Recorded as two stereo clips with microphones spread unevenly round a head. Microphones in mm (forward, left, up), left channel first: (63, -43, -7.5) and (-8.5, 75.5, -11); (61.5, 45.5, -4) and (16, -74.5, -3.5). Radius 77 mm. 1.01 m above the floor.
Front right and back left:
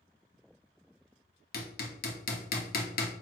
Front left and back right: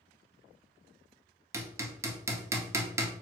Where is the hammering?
40° right, 1.5 m.